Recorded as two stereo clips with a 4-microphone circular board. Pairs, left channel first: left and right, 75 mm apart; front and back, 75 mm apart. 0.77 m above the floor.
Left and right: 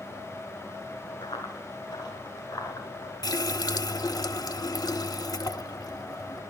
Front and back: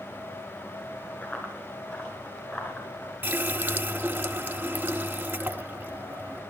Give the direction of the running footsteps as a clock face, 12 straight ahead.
10 o'clock.